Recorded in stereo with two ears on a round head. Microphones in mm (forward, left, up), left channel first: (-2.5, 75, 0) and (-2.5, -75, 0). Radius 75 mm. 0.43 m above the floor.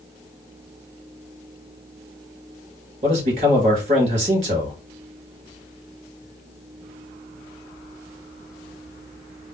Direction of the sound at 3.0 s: 40° right (ahead or behind).